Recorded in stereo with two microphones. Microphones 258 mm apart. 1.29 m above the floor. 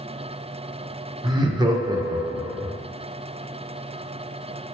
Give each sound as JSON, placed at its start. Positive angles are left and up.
{"t": 1.2, "sound": "laughter", "side_deg": -15, "distance_m": 0.6}